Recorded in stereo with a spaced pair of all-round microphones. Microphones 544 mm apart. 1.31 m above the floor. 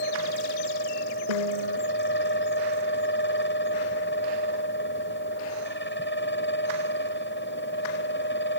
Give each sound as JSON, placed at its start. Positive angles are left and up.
{"t": 0.0, "sound": "a fan", "side_deg": 20}
{"t": 1.3, "sound": "a piano", "side_deg": 80}